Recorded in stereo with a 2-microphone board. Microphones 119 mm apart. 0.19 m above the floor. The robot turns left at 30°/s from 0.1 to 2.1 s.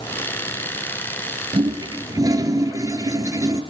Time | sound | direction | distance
1.5 | a toilet flushing | 45° right (ahead or behind) | 1.2 m